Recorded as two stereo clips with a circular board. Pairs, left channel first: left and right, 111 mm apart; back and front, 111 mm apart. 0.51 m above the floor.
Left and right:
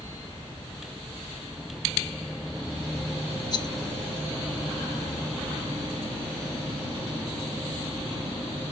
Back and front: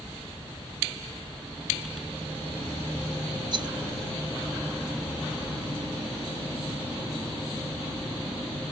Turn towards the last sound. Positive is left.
turn(degrees=45)